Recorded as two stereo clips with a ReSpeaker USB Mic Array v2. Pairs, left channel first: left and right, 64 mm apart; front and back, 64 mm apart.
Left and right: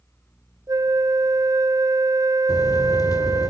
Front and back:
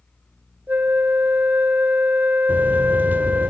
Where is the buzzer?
110° left, 2.5 m.